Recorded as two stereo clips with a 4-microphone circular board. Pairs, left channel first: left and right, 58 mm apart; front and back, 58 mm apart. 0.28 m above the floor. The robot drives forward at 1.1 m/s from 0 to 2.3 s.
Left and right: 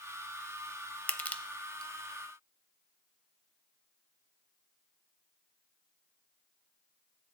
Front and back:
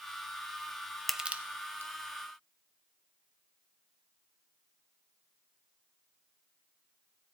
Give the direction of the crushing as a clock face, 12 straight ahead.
9 o'clock.